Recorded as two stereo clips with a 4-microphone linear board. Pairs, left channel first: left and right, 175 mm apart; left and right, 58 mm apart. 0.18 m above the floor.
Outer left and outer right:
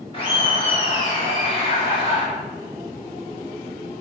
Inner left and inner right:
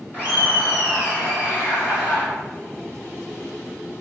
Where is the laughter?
30° left (ahead or behind), 1.6 m.